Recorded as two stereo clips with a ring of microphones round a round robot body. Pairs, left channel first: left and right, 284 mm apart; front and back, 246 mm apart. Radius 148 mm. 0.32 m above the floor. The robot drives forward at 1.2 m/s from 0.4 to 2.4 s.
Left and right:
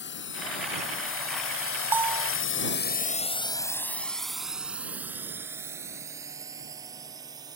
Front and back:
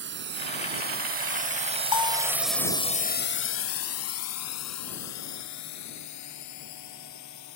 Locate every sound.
0.0 s a drone: 140° left; by 7.6 s 15° right
1.9 s a bell: 5° right